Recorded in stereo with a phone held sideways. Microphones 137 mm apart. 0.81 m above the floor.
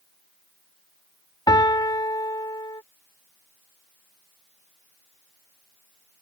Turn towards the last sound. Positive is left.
turn(degrees=30)  # may be behind; listen again after turning